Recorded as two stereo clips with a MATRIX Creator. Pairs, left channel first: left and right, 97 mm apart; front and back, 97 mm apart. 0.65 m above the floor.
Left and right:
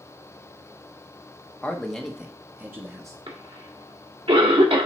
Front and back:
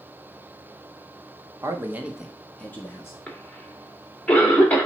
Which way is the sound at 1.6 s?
155° left.